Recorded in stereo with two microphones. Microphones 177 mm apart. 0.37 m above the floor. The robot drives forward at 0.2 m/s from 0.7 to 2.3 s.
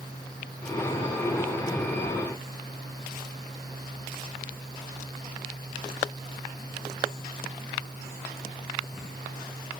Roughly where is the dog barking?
No dog barking in this recording.